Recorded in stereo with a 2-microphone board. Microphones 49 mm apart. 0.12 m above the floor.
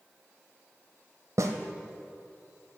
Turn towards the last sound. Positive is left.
turn(degrees=-75)  # may be behind; listen again after turning